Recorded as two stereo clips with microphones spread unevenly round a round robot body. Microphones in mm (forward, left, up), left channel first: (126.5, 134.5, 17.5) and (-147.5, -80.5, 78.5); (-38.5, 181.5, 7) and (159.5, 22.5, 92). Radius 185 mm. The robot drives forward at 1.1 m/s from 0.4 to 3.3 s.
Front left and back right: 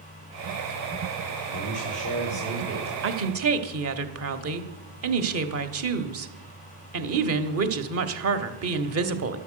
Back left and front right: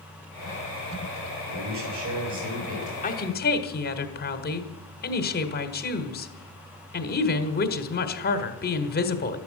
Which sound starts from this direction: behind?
A woman speaking, at 3.0 s.